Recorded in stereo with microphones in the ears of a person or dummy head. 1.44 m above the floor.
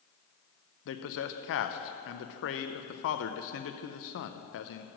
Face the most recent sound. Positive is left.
turn(degrees=65)  # may be behind; listen again after turning